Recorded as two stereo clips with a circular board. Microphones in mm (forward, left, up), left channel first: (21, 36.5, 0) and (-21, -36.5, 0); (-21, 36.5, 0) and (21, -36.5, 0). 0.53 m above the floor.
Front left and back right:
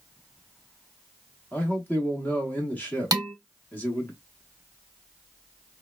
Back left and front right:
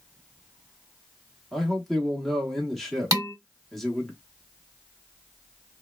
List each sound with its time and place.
1.5 s a man speaking: 35° left, 0.9 m
3.1 s dishes clattering: 95° right, 0.9 m